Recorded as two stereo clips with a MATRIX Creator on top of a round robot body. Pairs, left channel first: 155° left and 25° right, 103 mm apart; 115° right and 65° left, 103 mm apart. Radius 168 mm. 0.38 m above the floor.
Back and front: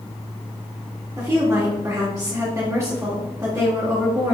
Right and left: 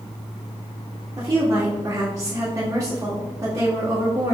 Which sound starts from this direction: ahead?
A woman speaking, at 1.2 s.